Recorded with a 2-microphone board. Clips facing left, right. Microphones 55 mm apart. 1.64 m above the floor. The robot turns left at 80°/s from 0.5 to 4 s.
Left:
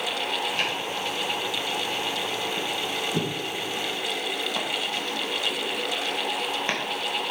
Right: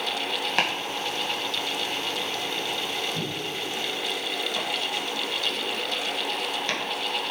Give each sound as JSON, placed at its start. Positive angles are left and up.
{"t": 0.6, "sound": "chopping", "side_deg": -60, "distance_m": 1.6}